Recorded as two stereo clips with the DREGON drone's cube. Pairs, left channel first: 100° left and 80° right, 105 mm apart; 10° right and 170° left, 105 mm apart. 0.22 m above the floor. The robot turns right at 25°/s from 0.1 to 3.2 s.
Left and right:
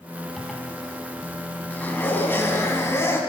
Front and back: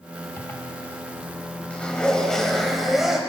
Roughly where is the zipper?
Ahead.